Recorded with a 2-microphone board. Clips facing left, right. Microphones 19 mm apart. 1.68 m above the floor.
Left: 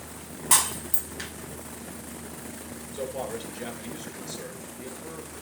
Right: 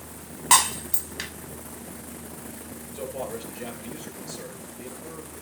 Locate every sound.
0.5 s breaking glass: 30° right (ahead or behind), 2.5 m
2.9 s a man speaking: 60° left (ahead or behind), 8.5 m